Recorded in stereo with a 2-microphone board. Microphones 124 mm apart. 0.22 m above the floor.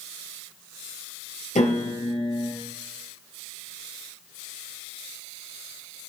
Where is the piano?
75° left (ahead or behind), 3.5 m.